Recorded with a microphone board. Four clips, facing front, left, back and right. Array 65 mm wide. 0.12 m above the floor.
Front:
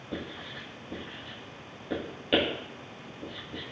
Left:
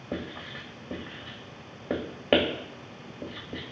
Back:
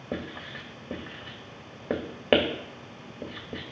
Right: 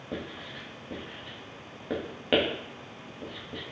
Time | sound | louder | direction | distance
0.1 | writing | left 2 dB, back 3 dB | 170° left | 2 m